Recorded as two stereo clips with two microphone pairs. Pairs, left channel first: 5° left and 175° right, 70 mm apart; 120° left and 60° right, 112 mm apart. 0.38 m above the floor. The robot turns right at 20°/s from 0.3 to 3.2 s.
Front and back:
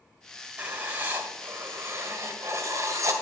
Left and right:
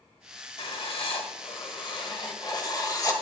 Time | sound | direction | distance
0.6 | writing | 120° left | 1.8 m